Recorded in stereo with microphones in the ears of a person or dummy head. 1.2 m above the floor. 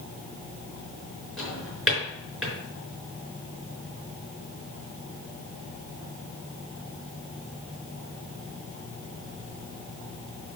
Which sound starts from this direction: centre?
A drawer, at 1.4 s.